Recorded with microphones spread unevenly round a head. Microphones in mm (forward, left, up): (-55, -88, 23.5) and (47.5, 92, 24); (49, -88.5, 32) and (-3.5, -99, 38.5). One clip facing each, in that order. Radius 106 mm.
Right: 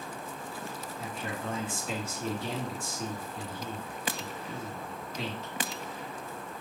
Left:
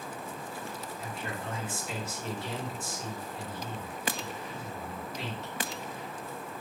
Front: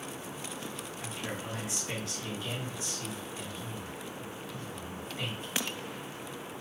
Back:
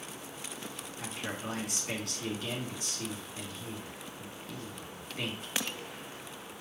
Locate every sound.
1.0 s a man speaking: 130° right, 2.5 m